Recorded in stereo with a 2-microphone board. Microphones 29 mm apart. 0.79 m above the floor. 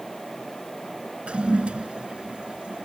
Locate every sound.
1.3 s a toilet flushing: 40° right (ahead or behind)